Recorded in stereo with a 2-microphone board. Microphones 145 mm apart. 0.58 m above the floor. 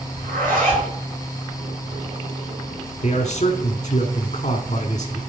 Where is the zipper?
75° right (ahead or behind), 4.5 m.